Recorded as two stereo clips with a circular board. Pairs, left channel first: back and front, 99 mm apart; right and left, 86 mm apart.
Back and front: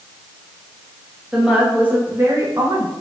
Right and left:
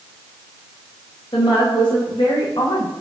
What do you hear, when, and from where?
1.3 s a woman speaking: 80° right, 3.5 m; by 2.9 s 45° right, 2.0 m